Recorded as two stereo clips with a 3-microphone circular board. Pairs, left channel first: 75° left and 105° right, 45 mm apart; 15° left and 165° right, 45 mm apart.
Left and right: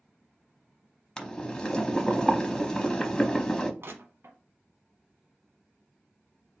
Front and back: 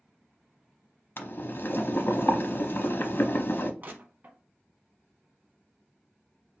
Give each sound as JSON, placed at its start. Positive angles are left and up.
{"t": 1.2, "sound": "boiling", "azimuth_deg": 5, "distance_m": 0.7}
{"t": 3.8, "sound": "crushing", "azimuth_deg": -120, "distance_m": 1.1}